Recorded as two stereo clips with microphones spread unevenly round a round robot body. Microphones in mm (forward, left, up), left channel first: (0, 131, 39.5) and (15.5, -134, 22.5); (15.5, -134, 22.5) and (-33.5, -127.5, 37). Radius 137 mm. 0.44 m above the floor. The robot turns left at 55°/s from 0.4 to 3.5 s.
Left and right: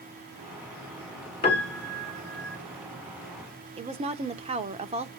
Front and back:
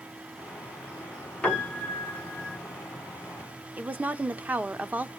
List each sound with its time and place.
1.4 s a piano: 30° left, 1.9 m; by 2.6 s 30° right, 1.9 m
3.8 s a woman speaking: 125° right, 0.9 m